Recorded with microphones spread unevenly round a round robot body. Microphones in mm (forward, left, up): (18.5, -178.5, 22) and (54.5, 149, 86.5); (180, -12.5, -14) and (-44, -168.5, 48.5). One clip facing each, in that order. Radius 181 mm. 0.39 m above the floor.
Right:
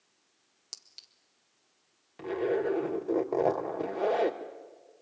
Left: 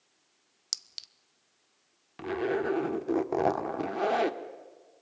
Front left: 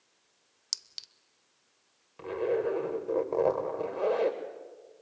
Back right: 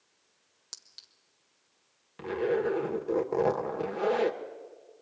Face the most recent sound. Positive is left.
turn(degrees=145)